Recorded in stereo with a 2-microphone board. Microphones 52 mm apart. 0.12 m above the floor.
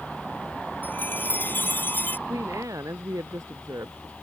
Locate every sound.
0.8 s a chime: 35° left (ahead or behind)
2.3 s a woman speaking: 80° right